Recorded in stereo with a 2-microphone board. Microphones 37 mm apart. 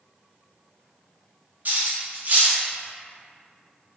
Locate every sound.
1.6 s cutlery clinking: 55° right (ahead or behind), 0.6 m